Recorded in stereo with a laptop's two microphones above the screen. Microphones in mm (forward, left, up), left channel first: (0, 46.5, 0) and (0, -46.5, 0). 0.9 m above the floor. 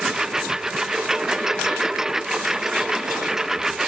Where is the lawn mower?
5° right (ahead or behind).